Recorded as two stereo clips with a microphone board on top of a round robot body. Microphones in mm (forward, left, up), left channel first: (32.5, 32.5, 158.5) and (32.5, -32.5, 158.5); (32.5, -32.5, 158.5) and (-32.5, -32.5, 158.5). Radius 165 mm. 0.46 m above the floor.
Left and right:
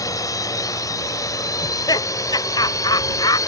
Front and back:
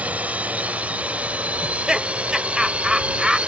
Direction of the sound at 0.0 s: 115° left.